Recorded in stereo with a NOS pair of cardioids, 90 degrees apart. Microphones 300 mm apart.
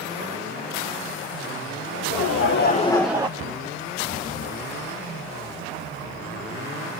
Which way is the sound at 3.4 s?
50° right.